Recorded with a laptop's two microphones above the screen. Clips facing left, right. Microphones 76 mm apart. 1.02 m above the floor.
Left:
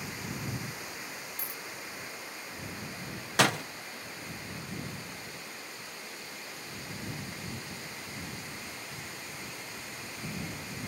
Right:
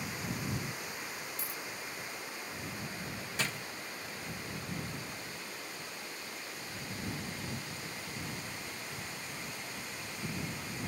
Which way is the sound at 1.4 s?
50° left (ahead or behind).